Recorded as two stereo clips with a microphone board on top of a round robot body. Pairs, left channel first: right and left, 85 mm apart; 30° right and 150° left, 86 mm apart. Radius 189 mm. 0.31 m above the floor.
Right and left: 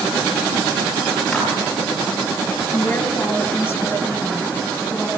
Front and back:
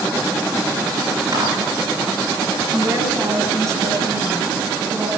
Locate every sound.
1.3 s a clap: 175° right, 9.5 m
2.7 s a woman speaking: 160° right, 7.5 m